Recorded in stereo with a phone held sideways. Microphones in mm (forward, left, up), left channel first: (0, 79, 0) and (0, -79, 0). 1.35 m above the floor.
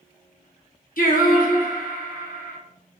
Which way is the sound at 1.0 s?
65° left (ahead or behind).